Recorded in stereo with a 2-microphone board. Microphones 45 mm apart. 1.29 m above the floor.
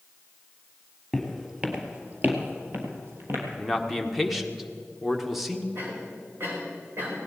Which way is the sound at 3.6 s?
Centre (ahead or behind).